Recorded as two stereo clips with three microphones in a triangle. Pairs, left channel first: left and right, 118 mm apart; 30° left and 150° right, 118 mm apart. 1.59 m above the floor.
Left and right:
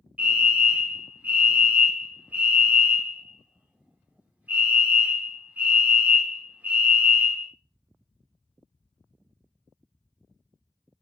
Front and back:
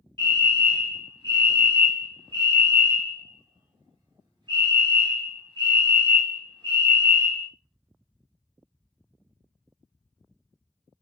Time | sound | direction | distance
0.2 | a fire alarm | 160° right | 0.8 m